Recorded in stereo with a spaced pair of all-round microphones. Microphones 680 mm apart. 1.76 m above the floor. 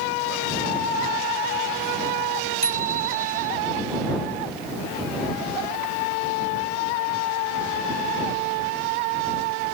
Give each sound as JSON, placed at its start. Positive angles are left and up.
{"t": 2.6, "sound": "a bicycle bell", "side_deg": -75}